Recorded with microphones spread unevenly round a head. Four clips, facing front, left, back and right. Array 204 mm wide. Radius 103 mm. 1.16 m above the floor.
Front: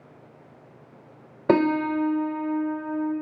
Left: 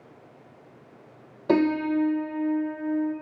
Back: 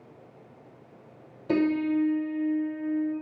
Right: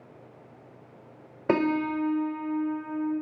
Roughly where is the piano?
Ahead.